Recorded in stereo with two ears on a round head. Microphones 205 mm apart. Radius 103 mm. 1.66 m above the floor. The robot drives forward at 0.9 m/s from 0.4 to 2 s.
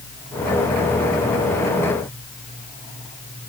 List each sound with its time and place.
Only background noise.